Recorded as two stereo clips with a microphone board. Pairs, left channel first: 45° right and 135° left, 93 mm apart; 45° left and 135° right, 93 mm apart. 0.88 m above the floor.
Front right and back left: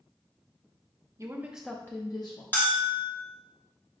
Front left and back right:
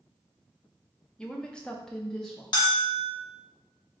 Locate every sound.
1.2 s a woman speaking: 120° left, 0.6 m; by 2.4 s 40° right, 0.8 m
2.5 s a bell: 25° left, 1.1 m